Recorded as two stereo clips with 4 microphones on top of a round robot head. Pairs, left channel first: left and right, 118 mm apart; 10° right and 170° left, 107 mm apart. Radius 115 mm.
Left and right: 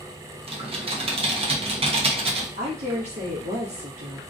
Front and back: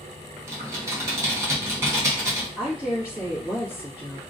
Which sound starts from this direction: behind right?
Typing on a keyboard, at 0.5 s.